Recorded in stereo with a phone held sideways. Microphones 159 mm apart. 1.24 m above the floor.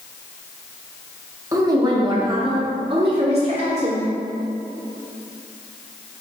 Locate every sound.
1.5 s a woman speaking: 20° right (ahead or behind), 1.9 m; by 4.0 s 45° right (ahead or behind), 3 m